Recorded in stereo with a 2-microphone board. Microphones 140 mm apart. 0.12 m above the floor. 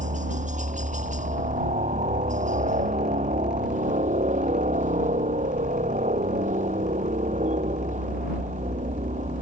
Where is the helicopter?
60° right (ahead or behind).